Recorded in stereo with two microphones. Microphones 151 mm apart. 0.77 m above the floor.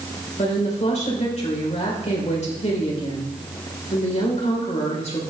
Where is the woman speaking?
45° left (ahead or behind), 3 m.